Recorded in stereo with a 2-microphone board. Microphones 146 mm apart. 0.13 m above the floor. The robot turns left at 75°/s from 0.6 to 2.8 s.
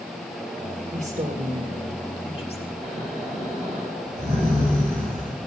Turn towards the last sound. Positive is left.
turn(degrees=-50)  # may be behind; listen again after turning